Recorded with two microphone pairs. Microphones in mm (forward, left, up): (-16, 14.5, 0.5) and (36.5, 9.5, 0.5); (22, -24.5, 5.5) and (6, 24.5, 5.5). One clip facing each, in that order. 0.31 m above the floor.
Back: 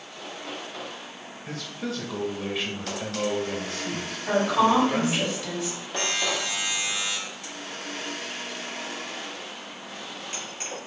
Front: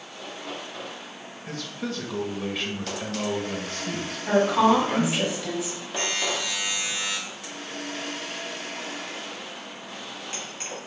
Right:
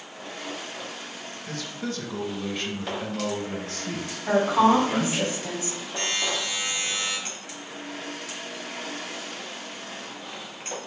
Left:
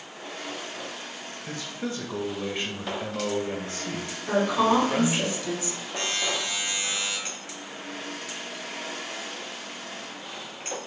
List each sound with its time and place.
1.5 s a man speaking: 90° left, 0.9 m
4.3 s a woman speaking: 90° right, 1.9 m
6.0 s a buzzer: 165° left, 2.5 m